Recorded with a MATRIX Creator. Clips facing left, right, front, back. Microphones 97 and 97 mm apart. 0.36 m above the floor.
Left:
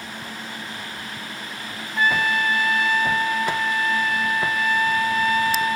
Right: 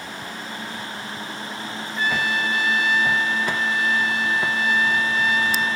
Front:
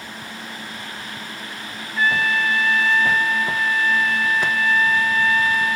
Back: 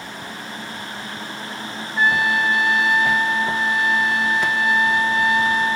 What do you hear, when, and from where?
2.0 s a trumpet: 115° left